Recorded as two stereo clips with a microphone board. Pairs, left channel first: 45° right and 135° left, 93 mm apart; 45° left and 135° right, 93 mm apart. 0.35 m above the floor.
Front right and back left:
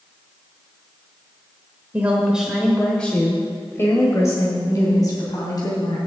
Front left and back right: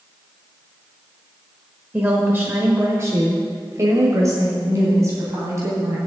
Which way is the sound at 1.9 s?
Straight behind.